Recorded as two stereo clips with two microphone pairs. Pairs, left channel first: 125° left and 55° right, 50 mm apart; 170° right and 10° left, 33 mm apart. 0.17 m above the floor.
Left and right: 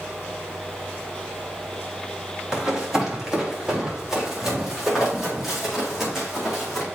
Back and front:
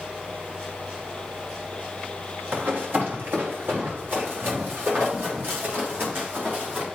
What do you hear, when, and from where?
2.5 s running footsteps: 20° left, 4 m; by 6.8 s 30° left, 8.5 m